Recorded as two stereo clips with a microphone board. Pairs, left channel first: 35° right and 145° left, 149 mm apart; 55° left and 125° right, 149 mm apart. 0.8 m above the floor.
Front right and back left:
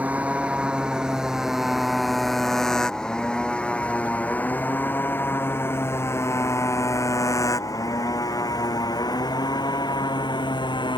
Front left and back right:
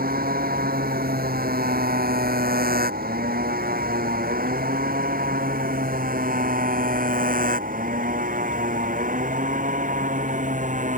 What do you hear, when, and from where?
0.0 s a motorcycle: 135° right; by 11.0 s 95° right